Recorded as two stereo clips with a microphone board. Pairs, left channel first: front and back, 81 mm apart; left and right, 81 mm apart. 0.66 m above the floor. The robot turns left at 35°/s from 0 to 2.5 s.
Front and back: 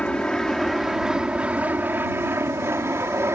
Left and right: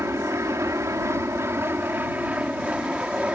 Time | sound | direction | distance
0.0 | an aircraft | 65° right | ?